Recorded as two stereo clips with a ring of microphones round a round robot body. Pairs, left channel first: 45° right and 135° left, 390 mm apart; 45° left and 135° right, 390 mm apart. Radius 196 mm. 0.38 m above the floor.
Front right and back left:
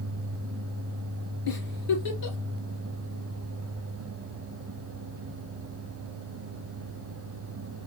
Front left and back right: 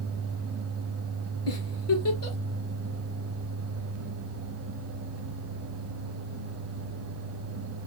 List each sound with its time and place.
1.5 s a giggle: 10° right, 2.5 m